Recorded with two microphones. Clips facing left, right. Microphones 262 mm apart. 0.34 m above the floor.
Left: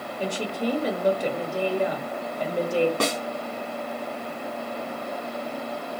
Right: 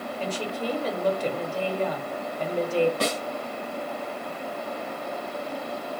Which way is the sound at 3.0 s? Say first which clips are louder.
Left 1 dB; 80° left.